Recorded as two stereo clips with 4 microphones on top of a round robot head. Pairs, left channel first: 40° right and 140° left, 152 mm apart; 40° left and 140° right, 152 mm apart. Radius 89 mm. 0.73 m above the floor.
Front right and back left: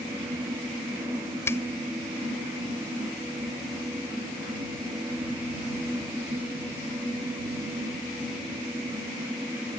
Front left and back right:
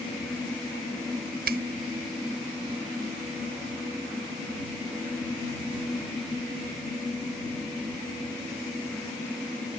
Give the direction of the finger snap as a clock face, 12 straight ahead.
4 o'clock.